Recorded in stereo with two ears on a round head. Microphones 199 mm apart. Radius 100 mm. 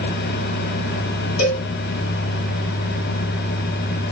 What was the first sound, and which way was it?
A cowbell, 70° left (ahead or behind).